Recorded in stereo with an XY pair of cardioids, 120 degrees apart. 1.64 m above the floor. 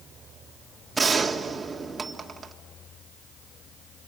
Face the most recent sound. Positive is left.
turn(degrees=-25)